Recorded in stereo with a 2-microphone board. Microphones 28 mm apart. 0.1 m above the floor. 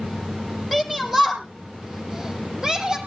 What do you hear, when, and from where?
0.7 s a shout: centre (ahead or behind), 3 m; by 3.0 s 25° right (ahead or behind), 3.5 m